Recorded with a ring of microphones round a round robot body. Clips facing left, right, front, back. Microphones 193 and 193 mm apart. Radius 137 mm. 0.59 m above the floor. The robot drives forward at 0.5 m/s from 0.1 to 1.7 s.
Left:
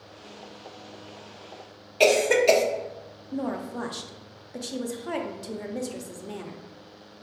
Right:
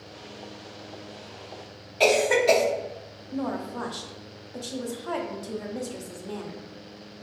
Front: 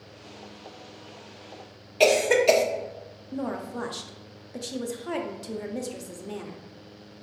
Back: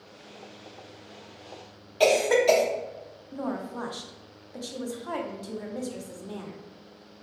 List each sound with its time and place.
2.0 s a cough: 50° left, 0.8 m
3.3 s a woman speaking: 40° left, 0.6 m